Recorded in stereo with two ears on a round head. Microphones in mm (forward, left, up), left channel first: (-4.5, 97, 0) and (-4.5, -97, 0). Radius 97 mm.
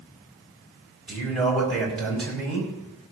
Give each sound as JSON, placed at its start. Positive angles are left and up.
{"t": 1.1, "sound": "a man speaking", "side_deg": 0, "distance_m": 4.5}